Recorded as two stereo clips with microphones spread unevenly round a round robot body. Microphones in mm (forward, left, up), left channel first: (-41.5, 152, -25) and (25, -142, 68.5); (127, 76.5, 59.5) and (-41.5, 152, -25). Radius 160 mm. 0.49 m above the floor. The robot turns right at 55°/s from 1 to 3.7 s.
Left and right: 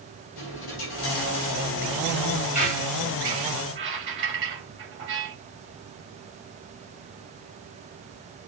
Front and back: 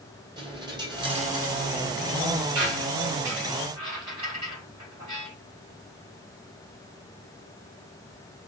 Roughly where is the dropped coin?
Left.